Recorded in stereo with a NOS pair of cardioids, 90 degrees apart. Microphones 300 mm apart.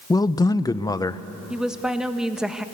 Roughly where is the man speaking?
Ahead.